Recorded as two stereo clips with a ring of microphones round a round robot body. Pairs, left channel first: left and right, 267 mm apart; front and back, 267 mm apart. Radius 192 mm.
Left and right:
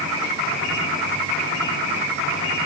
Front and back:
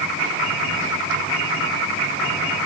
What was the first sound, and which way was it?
Only background noise.